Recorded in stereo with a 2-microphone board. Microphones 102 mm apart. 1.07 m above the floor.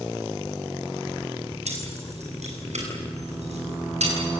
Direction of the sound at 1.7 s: 85° right.